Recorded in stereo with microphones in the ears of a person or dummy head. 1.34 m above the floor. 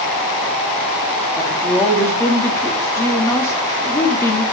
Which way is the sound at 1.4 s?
15° left (ahead or behind).